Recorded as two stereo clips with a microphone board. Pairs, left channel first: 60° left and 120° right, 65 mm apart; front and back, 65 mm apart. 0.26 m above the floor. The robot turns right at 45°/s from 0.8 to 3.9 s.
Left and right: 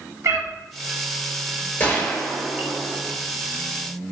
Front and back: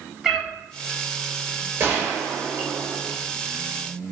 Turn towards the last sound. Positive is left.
turn(degrees=-140)